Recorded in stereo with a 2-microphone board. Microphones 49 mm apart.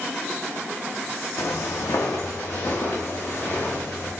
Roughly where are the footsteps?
Left.